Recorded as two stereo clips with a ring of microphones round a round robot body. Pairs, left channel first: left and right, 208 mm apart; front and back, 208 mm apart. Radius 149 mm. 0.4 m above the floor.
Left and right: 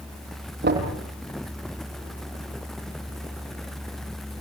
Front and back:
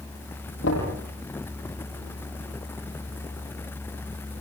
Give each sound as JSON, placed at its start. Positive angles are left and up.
{"t": 0.6, "sound": "knocking", "azimuth_deg": -55, "distance_m": 8.5}